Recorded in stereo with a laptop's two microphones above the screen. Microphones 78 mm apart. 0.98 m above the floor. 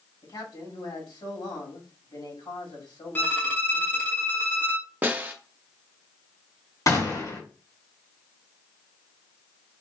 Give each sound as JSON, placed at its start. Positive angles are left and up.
{"t": 0.2, "sound": "a man speaking", "side_deg": 80, "distance_m": 2.5}
{"t": 3.1, "sound": "a violin", "side_deg": 25, "distance_m": 0.8}
{"t": 5.0, "sound": "a snare drum", "side_deg": -25, "distance_m": 0.7}
{"t": 6.9, "sound": "a gunshot", "side_deg": 50, "distance_m": 2.0}